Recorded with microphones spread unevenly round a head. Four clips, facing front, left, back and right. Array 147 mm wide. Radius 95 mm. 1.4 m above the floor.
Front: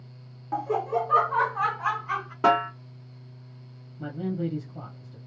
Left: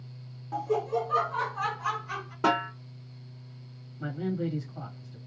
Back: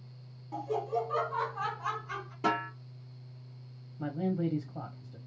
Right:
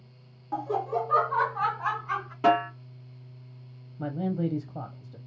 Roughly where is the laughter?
Ahead.